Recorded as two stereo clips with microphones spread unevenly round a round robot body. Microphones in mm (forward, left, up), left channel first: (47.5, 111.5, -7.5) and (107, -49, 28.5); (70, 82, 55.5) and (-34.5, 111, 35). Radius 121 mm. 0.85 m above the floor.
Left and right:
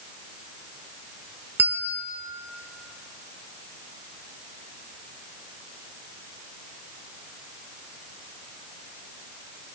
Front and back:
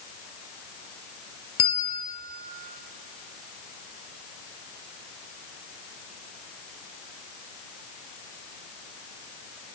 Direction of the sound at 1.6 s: Straight ahead.